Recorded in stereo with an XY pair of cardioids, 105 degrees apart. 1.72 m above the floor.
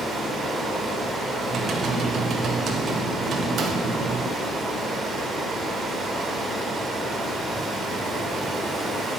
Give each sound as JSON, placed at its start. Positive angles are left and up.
{"t": 0.0, "sound": "running water", "azimuth_deg": -45, "distance_m": 4.5}
{"t": 1.4, "sound": "typing on a keyboard", "azimuth_deg": -55, "distance_m": 2.5}